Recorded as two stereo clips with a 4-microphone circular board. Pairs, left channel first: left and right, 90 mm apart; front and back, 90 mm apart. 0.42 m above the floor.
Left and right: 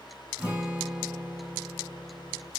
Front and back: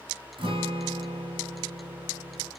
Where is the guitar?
170° right, 0.7 m.